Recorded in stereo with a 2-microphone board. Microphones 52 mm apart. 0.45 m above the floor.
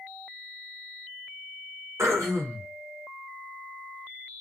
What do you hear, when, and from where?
2.0 s throat clearing: 75° right (ahead or behind), 0.9 m